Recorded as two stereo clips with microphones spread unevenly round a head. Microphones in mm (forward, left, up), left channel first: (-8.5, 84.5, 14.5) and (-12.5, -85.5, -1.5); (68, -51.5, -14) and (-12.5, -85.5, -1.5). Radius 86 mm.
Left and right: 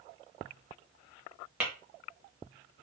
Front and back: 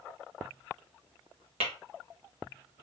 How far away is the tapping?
About 1.4 m.